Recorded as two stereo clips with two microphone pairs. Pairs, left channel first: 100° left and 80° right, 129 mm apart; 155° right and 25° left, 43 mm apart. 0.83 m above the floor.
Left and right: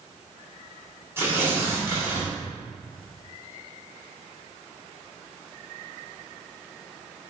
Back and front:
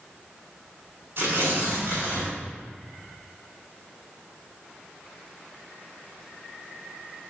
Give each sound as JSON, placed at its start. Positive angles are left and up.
{"t": 1.2, "sound": "tearing paper", "azimuth_deg": -10, "distance_m": 2.0}